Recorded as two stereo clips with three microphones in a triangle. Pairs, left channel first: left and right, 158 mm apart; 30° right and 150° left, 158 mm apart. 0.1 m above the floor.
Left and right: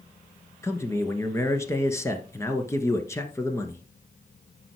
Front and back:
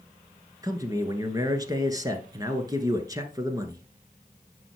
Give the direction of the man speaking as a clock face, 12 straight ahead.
8 o'clock.